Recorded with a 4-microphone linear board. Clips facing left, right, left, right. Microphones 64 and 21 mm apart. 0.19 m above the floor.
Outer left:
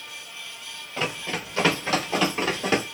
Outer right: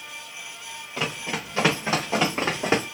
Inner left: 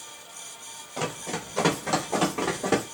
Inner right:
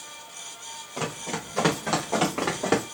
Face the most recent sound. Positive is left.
turn(degrees=-35)  # may be behind; listen again after turning